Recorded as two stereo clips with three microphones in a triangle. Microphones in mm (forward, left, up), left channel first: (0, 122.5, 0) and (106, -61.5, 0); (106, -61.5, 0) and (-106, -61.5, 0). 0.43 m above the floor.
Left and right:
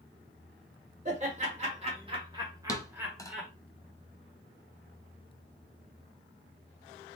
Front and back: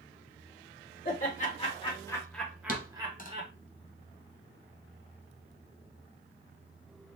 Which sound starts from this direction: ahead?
Laughter, at 1.1 s.